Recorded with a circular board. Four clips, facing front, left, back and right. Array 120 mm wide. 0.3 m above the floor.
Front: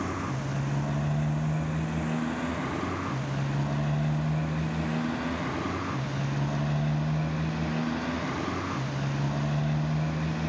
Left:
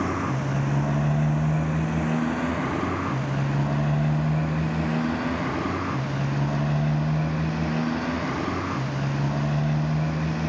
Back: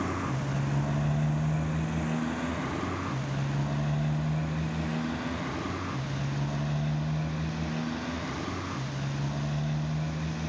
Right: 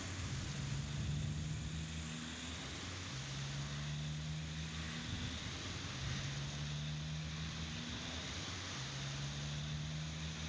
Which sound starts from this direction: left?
A motorcycle, at 0.0 s.